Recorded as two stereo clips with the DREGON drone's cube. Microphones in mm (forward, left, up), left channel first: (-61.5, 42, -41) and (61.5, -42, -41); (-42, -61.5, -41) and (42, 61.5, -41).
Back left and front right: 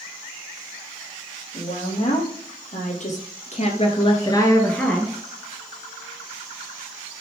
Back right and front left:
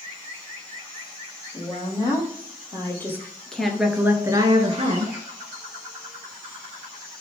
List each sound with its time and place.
1.5 s a woman speaking: 175° left, 4.5 m; by 5.2 s 50° left, 2.0 m